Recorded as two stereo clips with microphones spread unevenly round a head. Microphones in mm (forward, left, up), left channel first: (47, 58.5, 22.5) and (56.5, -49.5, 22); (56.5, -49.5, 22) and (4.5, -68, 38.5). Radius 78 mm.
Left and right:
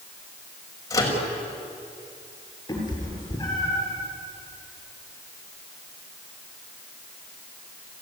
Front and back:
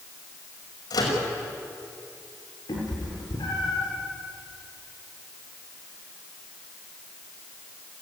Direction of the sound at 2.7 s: 35° left.